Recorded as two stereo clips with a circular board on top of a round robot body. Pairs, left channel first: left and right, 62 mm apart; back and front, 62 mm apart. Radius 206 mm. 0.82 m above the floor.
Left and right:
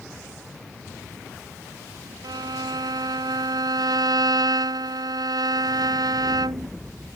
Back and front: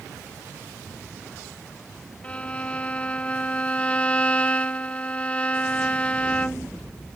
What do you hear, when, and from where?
2.2 s a violin: 110° right